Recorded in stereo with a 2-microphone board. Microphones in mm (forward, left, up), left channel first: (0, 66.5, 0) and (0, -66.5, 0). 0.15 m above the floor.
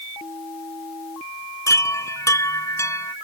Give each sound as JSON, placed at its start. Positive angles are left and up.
{"t": 1.7, "sound": "a chime", "side_deg": 25}